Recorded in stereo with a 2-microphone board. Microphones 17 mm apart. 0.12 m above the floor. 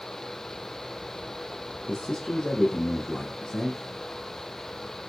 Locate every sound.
1.9 s a man speaking: 55° left (ahead or behind), 2.5 m